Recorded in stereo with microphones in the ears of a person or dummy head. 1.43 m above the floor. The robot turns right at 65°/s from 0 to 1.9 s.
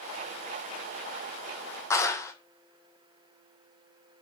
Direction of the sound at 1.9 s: 20° left (ahead or behind).